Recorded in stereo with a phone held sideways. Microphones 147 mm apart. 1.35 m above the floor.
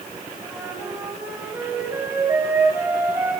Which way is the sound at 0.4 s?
15° right (ahead or behind).